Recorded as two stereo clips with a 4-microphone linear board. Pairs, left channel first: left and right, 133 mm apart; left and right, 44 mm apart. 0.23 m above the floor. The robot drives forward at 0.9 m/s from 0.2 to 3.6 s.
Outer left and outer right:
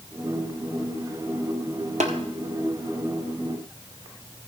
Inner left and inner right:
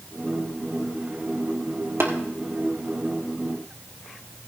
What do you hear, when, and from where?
2.0 s tapping: 60° right (ahead or behind), 1.8 m